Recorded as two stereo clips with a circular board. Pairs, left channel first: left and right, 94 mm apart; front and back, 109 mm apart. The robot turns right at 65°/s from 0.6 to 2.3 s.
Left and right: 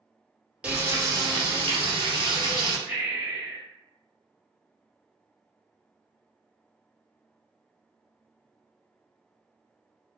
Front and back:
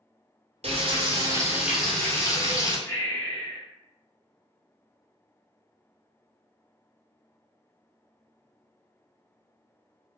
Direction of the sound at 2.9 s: 30° right.